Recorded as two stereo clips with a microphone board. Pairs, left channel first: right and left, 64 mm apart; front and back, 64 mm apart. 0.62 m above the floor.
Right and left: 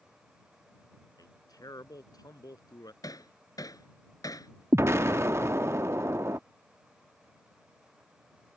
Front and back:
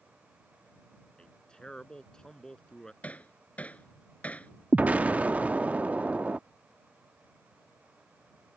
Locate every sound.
1.2 s a man speaking: 75° right; by 2.9 s 80° right
3.0 s hammering: 70° right
4.7 s an explosion: 120° left